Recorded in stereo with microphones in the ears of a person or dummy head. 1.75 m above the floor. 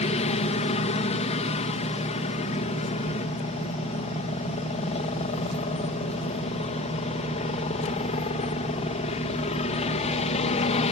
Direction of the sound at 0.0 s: 35° left (ahead or behind).